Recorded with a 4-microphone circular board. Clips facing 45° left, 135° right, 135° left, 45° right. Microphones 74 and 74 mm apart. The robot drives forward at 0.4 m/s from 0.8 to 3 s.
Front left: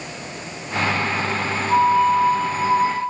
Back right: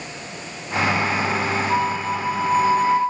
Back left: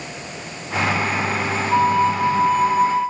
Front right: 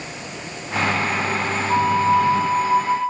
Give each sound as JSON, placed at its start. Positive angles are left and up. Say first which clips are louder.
{"t": 1.7, "sound": "a flute", "louder": "front left 6 dB, even", "azimuth_deg": -25, "distance_m": 3.0}